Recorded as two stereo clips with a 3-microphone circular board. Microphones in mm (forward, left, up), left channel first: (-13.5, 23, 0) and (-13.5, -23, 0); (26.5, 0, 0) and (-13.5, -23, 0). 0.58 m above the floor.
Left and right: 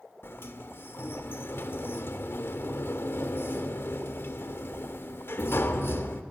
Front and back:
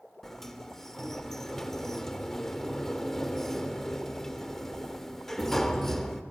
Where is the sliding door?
110° left, 1.6 m.